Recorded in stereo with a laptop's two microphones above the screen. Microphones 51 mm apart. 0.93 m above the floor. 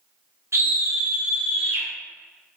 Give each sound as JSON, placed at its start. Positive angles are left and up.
{"t": 0.5, "sound": "a scream", "side_deg": -65, "distance_m": 0.6}